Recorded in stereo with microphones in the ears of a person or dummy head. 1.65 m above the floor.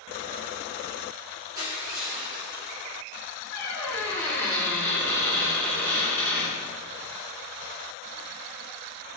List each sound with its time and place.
1.6 s crushing: 25° right (ahead or behind), 1.9 m
3.5 s a squeak: 10° left (ahead or behind), 1.9 m